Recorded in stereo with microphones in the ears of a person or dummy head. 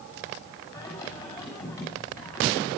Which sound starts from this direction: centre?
Singing, at 0.7 s.